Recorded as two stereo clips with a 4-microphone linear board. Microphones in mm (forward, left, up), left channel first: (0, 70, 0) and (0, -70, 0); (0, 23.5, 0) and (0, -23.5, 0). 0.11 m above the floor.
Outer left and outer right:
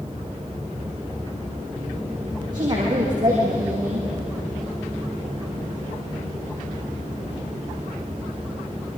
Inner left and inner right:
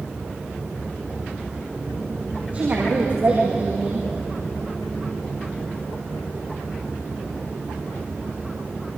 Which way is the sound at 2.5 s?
30° right (ahead or behind).